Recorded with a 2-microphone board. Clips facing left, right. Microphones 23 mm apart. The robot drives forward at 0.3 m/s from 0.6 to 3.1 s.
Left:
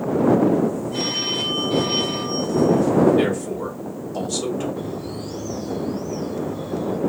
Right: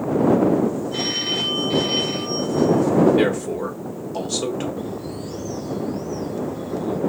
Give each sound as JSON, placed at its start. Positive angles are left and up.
{"t": 0.9, "sound": "a phone ringing", "side_deg": -40, "distance_m": 3.0}
{"t": 3.2, "sound": "a man speaking", "side_deg": -30, "distance_m": 1.4}
{"t": 4.8, "sound": "a bird", "side_deg": 20, "distance_m": 2.5}